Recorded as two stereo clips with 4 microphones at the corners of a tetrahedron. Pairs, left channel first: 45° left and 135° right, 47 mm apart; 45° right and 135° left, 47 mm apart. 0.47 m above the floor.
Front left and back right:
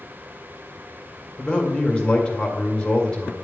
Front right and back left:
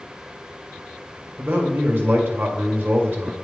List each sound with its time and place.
1.4 s a man speaking: 110° left, 1.5 m